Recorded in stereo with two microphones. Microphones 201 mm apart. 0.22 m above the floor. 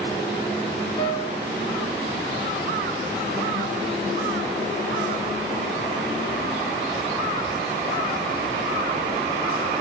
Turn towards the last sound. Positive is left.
turn(degrees=25)  # may be behind; listen again after turning